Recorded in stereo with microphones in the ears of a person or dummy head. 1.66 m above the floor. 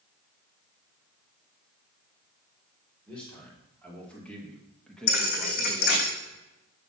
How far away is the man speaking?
About 4.5 m.